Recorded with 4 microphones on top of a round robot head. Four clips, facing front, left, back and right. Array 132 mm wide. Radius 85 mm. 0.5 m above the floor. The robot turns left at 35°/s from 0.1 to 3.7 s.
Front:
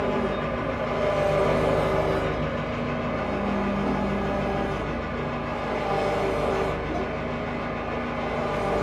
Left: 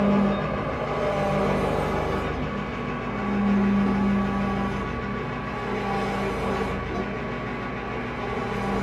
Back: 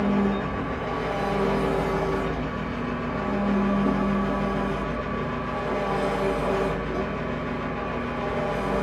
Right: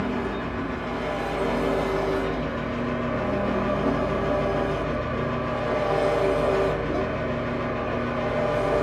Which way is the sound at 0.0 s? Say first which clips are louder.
Left 5 dB, back 1 dB; 45° left.